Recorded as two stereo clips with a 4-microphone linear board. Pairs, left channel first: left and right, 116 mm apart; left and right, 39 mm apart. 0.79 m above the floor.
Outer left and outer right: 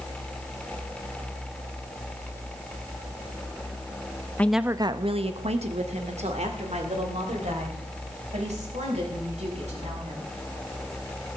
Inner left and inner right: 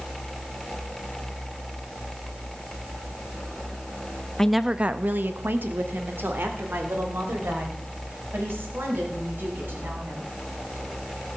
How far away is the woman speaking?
About 0.6 m.